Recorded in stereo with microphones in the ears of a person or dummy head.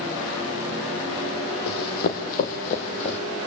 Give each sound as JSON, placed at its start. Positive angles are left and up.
{"t": 1.7, "sound": "running footsteps", "side_deg": 55, "distance_m": 3.5}